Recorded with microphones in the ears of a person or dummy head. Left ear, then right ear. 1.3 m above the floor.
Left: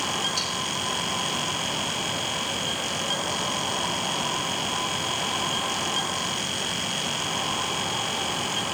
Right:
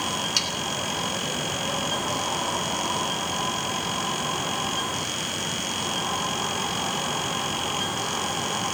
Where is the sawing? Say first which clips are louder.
Right 3 dB; 60° right (ahead or behind), 2 m.